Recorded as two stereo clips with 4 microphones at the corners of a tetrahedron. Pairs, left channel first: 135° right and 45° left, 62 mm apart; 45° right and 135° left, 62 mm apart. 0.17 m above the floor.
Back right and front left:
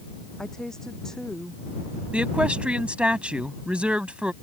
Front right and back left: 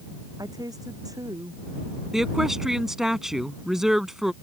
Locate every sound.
0.4 s a woman speaking: 145° left
2.1 s a woman speaking: 65° left